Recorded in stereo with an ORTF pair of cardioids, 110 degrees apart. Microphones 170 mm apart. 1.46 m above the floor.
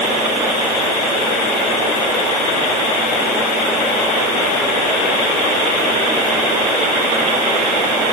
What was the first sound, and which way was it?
Only background noise.